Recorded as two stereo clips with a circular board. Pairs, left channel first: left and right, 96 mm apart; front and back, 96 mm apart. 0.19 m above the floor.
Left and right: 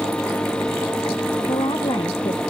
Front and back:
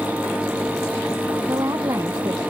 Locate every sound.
1.4 s a woman speaking: 125° left